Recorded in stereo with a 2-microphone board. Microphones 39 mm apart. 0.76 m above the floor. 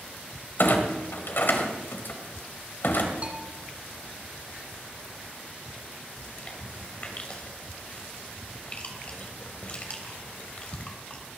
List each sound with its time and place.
0.6 s a clunk: 65° left (ahead or behind), 2 m
3.2 s a bell: 35° right (ahead or behind), 1.8 m
6.2 s chewing: 35° left (ahead or behind), 2.5 m